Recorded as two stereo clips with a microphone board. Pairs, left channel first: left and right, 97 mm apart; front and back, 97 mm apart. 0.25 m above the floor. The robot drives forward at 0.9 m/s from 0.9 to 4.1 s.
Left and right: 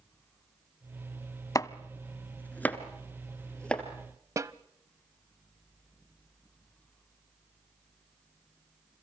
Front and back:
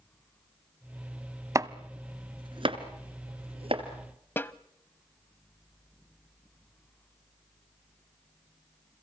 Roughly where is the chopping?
Behind left.